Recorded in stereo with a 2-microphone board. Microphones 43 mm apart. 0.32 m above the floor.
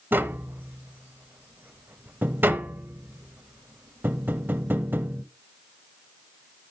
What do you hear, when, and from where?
0.1 s tapping: 55° right (ahead or behind), 0.7 m